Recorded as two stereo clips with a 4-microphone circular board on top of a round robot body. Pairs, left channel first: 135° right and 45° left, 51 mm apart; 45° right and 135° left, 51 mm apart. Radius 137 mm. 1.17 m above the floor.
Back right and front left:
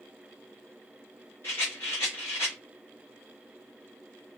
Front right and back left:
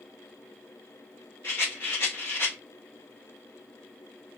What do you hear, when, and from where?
1.4 s a rattle: 90° right, 0.6 m